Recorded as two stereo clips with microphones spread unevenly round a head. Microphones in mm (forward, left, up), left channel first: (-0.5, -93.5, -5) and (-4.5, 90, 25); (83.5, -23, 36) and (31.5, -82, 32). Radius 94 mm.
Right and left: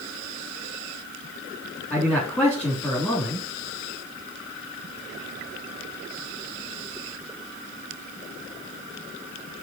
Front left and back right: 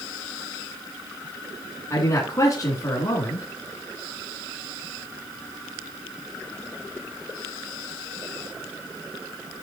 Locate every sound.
1.9 s a man speaking: straight ahead, 3.5 m